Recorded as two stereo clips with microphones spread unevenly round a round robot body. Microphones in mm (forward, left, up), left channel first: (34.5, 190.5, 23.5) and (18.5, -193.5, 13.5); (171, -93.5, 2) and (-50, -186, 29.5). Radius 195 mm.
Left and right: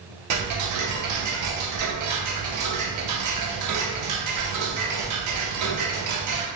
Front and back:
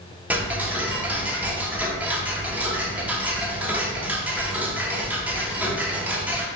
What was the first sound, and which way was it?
Ticking, 85° right.